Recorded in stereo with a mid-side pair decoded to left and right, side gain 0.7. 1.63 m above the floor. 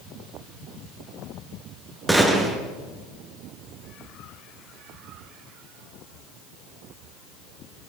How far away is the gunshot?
About 5 m.